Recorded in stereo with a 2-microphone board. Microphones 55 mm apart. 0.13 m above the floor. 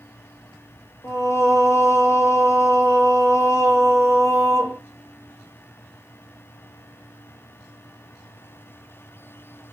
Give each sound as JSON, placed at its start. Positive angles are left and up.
{"t": 1.0, "sound": "singing", "side_deg": 60, "distance_m": 2.5}